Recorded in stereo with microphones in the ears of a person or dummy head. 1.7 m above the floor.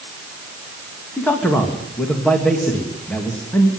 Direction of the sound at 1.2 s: 5° left (ahead or behind).